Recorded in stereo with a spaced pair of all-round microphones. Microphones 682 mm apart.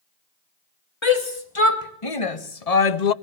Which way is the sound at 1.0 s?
45° left (ahead or behind).